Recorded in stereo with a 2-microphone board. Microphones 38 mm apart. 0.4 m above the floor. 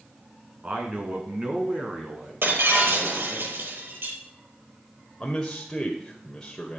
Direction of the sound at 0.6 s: 35° right (ahead or behind).